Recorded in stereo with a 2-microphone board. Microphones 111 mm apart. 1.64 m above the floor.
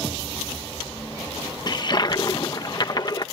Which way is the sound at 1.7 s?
40° left (ahead or behind).